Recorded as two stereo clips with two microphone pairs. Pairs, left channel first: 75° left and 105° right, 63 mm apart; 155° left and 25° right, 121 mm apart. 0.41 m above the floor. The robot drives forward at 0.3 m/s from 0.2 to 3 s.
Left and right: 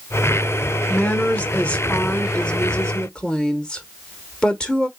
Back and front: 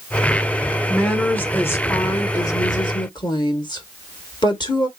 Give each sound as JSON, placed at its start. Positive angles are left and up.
{"t": 0.9, "sound": "a woman speaking", "azimuth_deg": 80, "distance_m": 0.9}